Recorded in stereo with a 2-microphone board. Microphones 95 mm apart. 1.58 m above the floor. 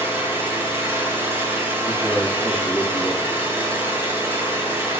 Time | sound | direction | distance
0.0 | an engine running | 25° right (ahead or behind) | 4 m
1.9 | a man speaking | 20° right (ahead or behind) | 3 m